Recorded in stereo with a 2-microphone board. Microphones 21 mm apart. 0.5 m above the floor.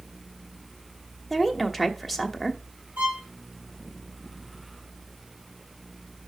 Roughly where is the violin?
Right.